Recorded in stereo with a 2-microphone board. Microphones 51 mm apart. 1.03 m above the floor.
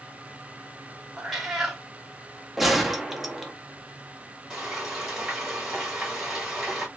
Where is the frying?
5° right (ahead or behind), 1.8 m.